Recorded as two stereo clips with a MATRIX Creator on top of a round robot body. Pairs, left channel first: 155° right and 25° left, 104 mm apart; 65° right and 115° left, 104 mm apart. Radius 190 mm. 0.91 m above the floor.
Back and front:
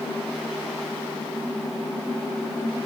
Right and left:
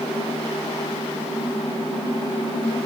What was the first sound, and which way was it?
Only background noise.